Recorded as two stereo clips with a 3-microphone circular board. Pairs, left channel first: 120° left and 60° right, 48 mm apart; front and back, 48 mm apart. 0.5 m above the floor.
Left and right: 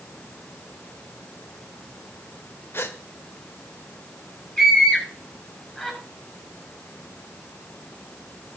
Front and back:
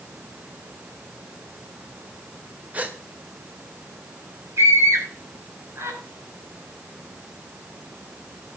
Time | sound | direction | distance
2.7 | a gasp | 130° left | 1.7 m
4.6 | a scream | 160° right | 9 m